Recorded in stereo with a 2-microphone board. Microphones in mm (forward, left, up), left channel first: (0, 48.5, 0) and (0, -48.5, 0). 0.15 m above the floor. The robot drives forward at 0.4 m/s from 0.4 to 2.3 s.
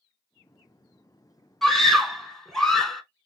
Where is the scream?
Centre (ahead or behind), 1.0 m.